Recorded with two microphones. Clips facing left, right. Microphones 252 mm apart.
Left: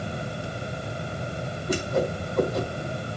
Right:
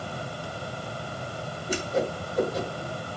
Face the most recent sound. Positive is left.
turn(degrees=65)  # may be behind; listen again after turning